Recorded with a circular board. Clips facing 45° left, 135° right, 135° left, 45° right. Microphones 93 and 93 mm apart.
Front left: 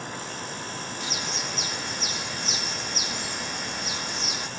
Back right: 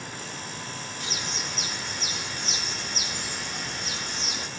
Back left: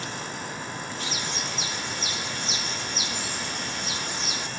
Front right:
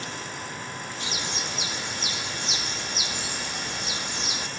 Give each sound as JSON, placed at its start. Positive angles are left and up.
{"t": 1.0, "sound": "a bird", "azimuth_deg": -35, "distance_m": 0.8}